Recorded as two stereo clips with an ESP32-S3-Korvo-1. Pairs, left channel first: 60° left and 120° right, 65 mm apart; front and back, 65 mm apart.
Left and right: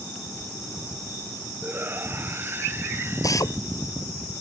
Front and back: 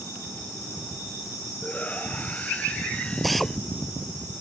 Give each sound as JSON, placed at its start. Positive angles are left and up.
{"t": 1.6, "sound": "a shout", "azimuth_deg": -65}
{"t": 3.2, "sound": "a drill", "azimuth_deg": 90}